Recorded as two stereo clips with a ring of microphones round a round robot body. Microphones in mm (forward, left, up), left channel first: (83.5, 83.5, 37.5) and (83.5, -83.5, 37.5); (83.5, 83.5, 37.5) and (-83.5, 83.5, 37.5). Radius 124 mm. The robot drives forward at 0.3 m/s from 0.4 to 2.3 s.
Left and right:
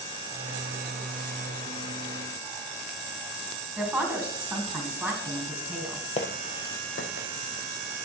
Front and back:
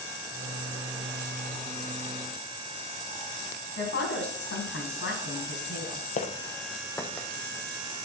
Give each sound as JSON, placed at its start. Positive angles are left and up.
{"t": 3.8, "sound": "a woman speaking", "azimuth_deg": -5, "distance_m": 4.0}
{"t": 6.2, "sound": "footsteps", "azimuth_deg": 40, "distance_m": 1.1}